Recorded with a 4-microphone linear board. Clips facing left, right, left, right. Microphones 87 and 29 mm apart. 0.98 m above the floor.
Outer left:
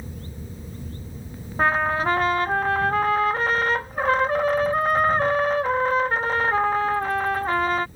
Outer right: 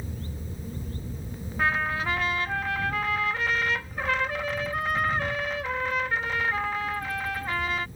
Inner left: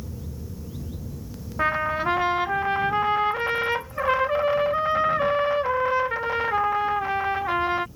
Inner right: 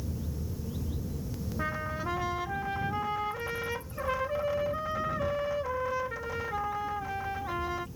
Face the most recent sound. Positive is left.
turn(degrees=40)  # may be behind; listen again after turning